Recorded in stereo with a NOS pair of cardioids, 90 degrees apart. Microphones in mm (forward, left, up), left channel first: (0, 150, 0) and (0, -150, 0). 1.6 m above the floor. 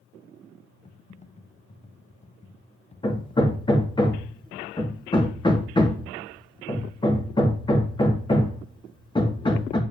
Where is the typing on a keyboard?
20° left, 1.1 m.